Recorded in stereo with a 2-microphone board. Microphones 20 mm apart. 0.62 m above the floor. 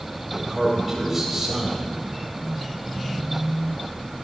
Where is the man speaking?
20° right (ahead or behind), 3.5 m.